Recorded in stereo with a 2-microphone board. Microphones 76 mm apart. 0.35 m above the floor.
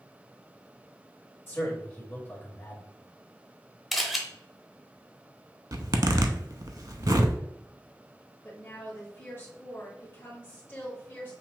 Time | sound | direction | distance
1.5 | a man speaking | 30° left (ahead or behind) | 1.7 m
3.9 | a camera shutter | centre (ahead or behind) | 0.8 m
5.7 | a zipper | 55° right (ahead or behind) | 0.5 m
8.4 | a woman speaking | 30° left (ahead or behind) | 1.6 m